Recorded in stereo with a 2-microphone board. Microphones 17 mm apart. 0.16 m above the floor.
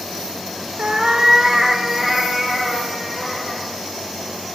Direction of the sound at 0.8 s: 50° right (ahead or behind).